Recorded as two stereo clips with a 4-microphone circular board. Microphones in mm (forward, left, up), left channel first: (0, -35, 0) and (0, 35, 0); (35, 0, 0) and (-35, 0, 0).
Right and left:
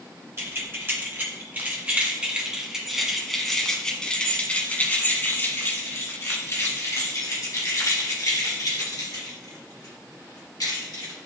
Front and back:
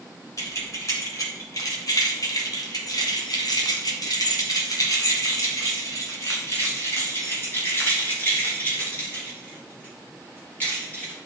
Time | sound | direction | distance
0.4 | keys jangling | 40° left | 2.5 m